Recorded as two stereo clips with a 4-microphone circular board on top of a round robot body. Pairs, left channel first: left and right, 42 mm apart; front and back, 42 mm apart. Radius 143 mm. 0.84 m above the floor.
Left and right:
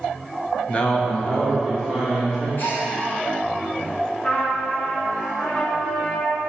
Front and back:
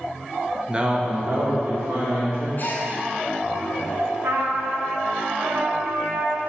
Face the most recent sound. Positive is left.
turn(degrees=155)